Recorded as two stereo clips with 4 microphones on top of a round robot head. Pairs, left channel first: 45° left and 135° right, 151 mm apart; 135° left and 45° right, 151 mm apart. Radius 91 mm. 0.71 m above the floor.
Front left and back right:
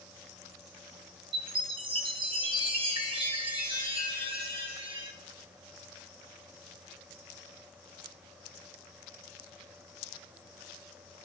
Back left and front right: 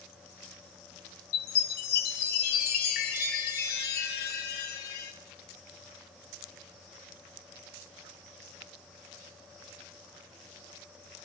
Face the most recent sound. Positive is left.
turn(degrees=165)